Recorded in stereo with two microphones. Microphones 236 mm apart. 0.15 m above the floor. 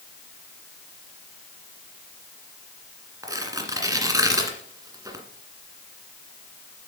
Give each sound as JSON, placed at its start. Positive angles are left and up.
{"t": 3.2, "sound": "tearing paper", "side_deg": -15, "distance_m": 1.7}